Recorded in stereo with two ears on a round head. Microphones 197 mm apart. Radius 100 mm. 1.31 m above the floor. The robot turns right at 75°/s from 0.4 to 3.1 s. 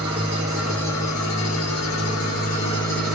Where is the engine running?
20° right, 1.6 m; by 3.1 s straight behind, 1.6 m.